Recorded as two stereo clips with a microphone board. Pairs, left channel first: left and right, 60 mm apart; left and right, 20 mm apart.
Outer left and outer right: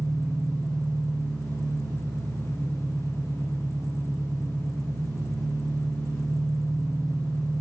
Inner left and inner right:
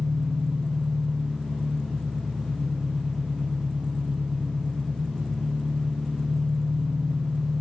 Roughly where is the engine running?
Right.